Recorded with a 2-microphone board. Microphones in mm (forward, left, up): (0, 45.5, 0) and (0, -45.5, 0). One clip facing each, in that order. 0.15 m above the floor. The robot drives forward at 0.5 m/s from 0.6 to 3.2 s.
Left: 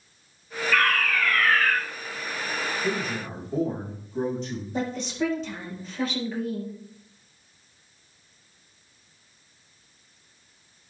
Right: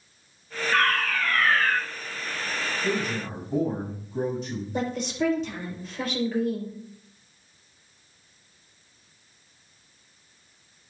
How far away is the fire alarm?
About 4.5 m.